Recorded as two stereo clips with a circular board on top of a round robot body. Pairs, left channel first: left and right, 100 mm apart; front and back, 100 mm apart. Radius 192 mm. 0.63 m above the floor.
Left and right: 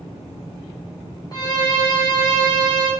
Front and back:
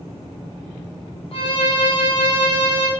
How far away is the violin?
About 1.9 m.